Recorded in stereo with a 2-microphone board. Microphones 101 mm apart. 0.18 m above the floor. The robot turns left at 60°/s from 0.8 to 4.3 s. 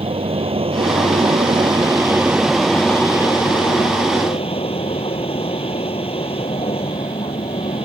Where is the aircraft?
75° right; by 7.8 s 75° left.